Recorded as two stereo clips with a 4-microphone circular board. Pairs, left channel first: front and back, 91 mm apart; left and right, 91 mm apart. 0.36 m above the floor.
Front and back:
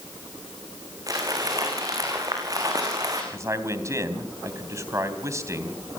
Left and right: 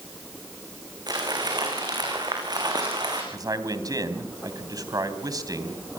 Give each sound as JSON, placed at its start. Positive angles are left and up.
{"t": 1.1, "sound": "crumpling", "azimuth_deg": -130, "distance_m": 7.0}
{"t": 3.3, "sound": "a man speaking", "azimuth_deg": -130, "distance_m": 3.0}